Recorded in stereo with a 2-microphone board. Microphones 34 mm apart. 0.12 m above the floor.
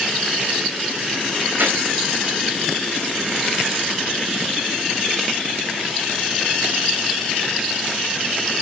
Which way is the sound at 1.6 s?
70° right (ahead or behind).